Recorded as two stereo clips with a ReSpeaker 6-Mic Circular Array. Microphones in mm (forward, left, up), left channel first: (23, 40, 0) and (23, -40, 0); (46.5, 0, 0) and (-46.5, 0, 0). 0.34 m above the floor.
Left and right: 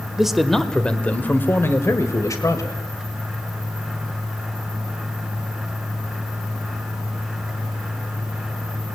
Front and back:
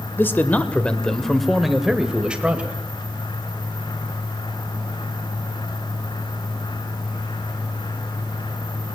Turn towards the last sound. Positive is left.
turn(degrees=110)